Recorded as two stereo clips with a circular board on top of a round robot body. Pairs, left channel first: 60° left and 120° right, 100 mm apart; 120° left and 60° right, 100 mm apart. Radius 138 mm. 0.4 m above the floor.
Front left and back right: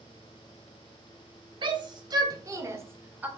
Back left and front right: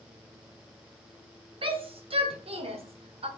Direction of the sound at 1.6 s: 85° right.